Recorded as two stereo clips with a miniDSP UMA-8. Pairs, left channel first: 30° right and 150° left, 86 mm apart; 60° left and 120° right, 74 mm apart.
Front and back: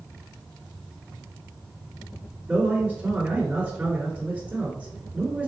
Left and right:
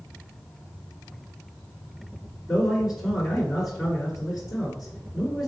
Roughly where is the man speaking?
Behind.